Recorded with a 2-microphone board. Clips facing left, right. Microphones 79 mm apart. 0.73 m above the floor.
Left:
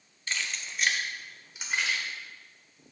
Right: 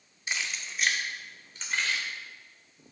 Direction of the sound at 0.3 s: 15° right (ahead or behind).